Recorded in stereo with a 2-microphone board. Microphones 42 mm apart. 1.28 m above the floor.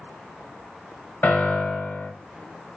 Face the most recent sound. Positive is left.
turn(degrees=55)  # may be behind; listen again after turning